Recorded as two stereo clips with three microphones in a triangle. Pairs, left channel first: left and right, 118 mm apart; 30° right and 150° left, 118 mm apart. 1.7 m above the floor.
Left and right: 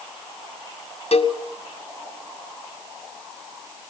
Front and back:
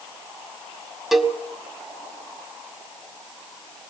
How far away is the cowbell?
About 1.9 m.